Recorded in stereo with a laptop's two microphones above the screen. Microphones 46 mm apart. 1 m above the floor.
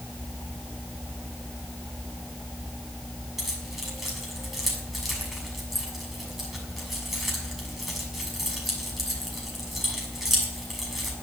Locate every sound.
3.4 s keys jangling: 5° right (ahead or behind), 6.5 m